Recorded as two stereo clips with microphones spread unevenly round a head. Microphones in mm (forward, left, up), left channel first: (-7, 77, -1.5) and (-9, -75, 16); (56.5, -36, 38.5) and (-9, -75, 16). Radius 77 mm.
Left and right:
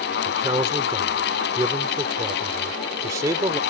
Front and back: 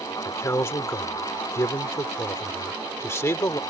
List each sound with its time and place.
0.2 s a man speaking: 20° right